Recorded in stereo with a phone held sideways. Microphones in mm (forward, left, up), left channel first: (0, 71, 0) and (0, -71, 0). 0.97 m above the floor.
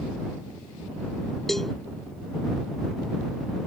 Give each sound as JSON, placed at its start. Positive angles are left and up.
{"t": 1.5, "sound": "a cowbell", "side_deg": 0}